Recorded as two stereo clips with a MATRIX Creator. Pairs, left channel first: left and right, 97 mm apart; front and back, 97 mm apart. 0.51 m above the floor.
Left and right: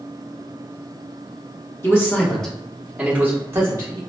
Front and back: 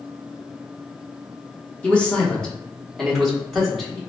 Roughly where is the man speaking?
Ahead left.